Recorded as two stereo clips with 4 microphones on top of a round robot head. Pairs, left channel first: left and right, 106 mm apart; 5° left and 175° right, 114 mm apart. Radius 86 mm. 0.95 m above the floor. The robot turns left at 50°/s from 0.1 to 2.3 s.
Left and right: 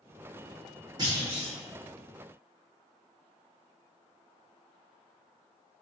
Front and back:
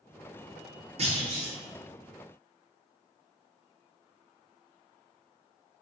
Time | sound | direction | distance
1.0 | a clunk | 145° right | 2 m